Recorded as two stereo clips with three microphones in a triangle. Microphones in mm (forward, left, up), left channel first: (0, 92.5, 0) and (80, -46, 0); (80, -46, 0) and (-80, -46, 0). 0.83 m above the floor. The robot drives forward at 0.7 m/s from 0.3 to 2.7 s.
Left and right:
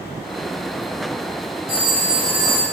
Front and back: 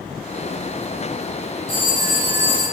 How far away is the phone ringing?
About 2.5 m.